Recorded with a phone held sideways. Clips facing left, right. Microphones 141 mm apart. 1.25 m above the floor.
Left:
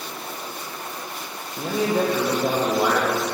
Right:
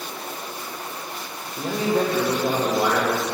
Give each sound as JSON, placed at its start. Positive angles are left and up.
{"t": 1.6, "sound": "a man speaking", "side_deg": 5, "distance_m": 0.9}